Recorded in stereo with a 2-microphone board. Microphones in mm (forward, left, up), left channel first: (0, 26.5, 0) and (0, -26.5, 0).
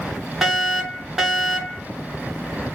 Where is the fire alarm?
10° right (ahead or behind), 2.5 m.